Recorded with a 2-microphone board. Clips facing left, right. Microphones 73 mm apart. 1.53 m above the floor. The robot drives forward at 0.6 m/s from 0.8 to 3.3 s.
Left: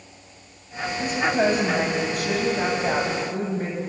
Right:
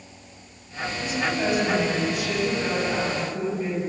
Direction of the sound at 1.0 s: 40° left (ahead or behind).